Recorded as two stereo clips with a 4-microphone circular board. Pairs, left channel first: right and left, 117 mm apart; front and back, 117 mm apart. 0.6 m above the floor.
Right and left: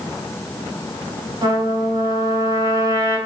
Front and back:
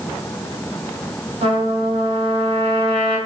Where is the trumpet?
150° left, 1.5 m.